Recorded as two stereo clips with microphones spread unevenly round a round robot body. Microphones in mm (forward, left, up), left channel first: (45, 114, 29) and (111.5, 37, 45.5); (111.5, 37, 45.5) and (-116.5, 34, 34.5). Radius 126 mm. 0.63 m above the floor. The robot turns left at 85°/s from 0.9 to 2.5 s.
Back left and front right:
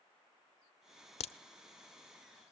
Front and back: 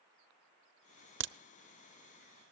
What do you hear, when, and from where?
1.2 s a crack: 145° left, 0.8 m; by 1.3 s 135° left, 0.8 m